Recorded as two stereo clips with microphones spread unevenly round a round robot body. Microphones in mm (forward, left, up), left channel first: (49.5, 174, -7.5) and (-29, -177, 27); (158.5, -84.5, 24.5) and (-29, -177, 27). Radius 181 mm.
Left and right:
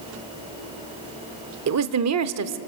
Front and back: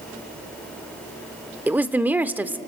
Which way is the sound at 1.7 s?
75° right.